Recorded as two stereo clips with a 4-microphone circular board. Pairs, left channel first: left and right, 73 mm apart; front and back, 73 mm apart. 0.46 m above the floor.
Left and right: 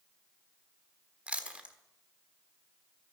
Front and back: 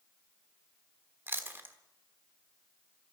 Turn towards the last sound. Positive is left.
turn(degrees=-150)